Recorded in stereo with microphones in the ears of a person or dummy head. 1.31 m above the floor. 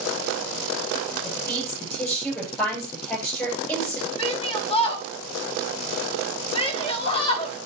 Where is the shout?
25° left (ahead or behind), 1.5 m.